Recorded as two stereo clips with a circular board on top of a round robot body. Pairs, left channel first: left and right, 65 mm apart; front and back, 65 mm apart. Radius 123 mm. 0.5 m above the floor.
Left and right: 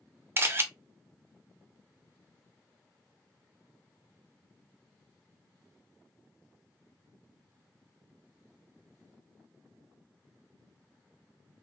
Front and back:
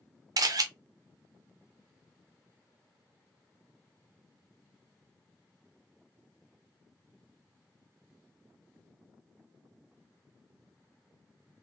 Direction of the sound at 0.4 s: 145° right.